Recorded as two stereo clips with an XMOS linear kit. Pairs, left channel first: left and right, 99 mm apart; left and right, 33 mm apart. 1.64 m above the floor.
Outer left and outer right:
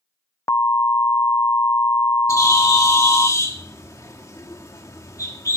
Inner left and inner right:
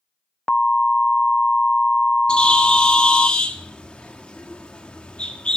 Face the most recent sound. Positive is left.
turn(degrees=30)  # may be behind; listen again after turning